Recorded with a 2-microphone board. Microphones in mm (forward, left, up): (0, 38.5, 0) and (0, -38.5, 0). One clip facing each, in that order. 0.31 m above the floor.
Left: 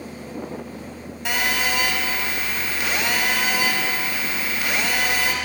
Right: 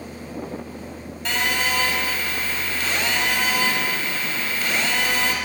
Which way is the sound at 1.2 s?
10° left (ahead or behind).